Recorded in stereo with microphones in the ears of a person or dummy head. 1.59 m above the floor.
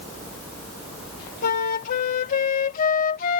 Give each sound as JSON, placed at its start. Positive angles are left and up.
{"t": 1.4, "sound": "a flute", "side_deg": 50}